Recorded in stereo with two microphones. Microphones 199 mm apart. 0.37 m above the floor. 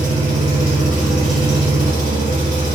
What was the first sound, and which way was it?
An engine running, 30° right (ahead or behind).